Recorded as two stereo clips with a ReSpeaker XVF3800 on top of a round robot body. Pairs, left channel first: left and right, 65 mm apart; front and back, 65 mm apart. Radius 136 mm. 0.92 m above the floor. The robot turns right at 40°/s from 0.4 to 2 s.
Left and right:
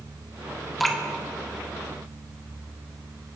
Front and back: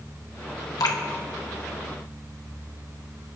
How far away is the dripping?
About 2.0 m.